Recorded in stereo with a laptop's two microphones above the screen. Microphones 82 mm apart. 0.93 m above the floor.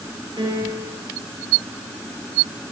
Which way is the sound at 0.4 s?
65° right (ahead or behind).